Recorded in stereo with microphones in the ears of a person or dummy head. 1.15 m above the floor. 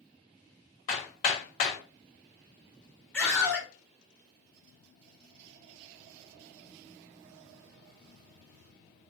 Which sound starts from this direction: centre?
A scream, at 3.1 s.